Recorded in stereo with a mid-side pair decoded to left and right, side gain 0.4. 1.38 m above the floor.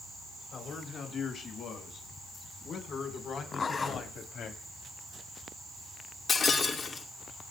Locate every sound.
0.5 s a man speaking: 60° left, 7.5 m; by 4.5 s 80° left, 3 m
3.5 s a zipper: 45° left, 4.5 m
6.3 s breaking glass: 50° left, 2.5 m